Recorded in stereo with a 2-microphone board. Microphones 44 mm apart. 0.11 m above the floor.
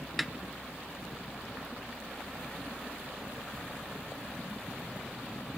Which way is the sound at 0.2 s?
Centre (ahead or behind).